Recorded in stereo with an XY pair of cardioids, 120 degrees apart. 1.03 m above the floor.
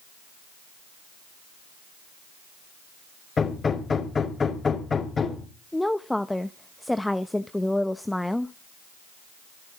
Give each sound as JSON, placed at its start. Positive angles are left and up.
{"t": 3.4, "sound": "hammering", "azimuth_deg": 30, "distance_m": 5.5}
{"t": 5.7, "sound": "a woman speaking", "azimuth_deg": 5, "distance_m": 0.8}